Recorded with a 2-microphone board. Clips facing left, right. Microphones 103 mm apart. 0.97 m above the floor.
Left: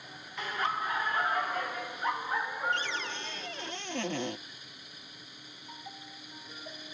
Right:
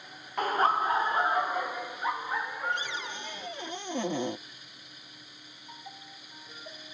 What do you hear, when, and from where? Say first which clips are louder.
0.4 s laughter: right 7 dB; 50° right (ahead or behind); by 3.7 s 10° left (ahead or behind)
2.7 s a cupboard door: left 1 dB; 15° right (ahead or behind)